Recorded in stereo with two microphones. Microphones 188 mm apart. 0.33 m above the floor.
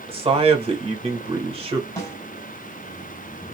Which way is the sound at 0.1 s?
30° right (ahead or behind).